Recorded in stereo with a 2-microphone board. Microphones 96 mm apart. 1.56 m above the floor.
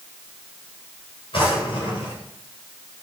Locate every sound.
1.3 s a drawer: 75° left (ahead or behind), 4 m